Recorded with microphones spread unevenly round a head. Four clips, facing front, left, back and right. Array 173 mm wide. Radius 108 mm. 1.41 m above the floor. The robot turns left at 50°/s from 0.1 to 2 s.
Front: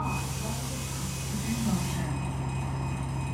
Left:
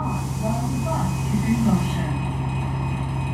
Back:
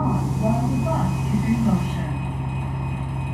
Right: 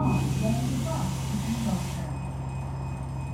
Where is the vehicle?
165° right; by 3.3 s 100° left.